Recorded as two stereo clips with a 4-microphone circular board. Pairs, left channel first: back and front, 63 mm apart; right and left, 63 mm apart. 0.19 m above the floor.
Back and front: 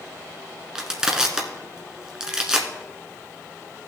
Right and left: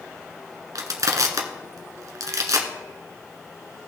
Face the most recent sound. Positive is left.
turn(degrees=80)